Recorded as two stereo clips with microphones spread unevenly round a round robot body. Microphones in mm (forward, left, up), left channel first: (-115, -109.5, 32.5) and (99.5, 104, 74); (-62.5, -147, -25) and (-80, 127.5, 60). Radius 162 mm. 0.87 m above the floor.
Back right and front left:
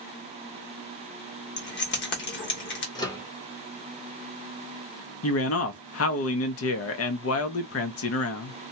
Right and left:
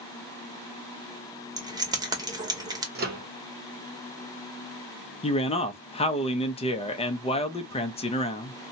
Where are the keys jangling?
170° left, 1.0 m.